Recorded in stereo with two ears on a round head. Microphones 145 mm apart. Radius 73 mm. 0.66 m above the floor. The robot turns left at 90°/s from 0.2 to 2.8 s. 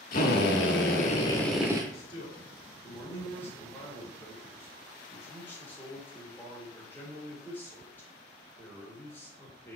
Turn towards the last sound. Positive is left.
turn(degrees=15)